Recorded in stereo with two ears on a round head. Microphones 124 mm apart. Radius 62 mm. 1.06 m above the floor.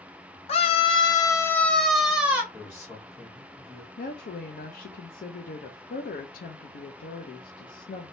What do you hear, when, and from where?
0.5 s a scream: 45° left (ahead or behind), 0.9 m; by 2.4 s 15° right (ahead or behind), 1.0 m
2.5 s a man speaking: 15° left (ahead or behind), 1.6 m
4.0 s a woman speaking: 70° left (ahead or behind), 0.6 m